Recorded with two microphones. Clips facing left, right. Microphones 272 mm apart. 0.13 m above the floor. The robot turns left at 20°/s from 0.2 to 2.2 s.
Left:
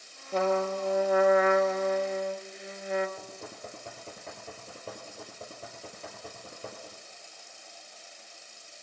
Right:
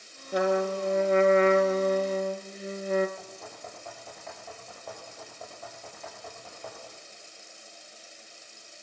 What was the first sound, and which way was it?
A trumpet, 15° right.